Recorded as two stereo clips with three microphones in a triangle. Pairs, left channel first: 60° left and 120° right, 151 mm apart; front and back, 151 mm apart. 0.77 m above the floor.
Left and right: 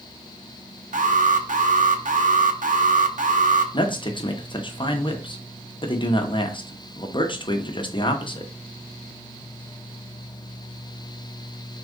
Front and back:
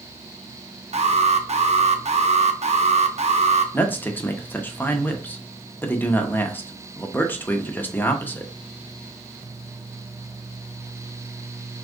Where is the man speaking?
70° left, 0.7 m.